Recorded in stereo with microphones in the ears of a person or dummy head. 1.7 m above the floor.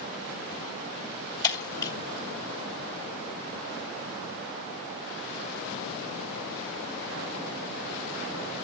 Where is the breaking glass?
20° left (ahead or behind), 1.9 m.